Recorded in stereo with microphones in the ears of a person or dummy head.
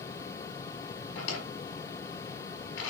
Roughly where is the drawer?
Left.